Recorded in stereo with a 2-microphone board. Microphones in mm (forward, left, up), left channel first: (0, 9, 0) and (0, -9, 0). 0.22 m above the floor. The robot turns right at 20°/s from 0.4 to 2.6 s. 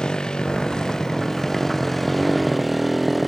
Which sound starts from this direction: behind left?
A motorcycle, at 0.0 s.